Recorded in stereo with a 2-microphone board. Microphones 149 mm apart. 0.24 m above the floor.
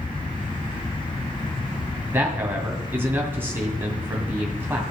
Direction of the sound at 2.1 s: 15° right (ahead or behind).